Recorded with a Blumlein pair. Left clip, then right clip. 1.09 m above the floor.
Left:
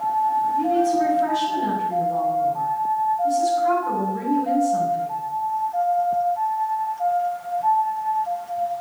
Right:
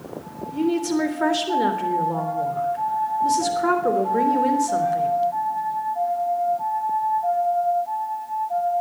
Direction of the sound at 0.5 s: 50° right.